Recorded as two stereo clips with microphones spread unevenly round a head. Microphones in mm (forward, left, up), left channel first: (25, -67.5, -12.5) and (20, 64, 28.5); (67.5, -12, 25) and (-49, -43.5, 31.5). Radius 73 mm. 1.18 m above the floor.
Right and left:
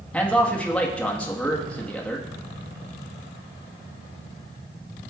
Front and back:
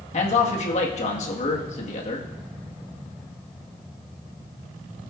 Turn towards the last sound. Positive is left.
turn(degrees=-10)